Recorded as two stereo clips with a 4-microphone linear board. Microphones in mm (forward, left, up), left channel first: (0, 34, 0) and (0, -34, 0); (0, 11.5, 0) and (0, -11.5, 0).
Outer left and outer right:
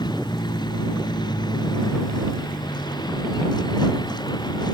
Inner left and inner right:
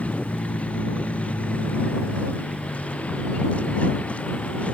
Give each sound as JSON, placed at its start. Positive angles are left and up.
{"t": 0.0, "sound": "a vehicle", "side_deg": 80}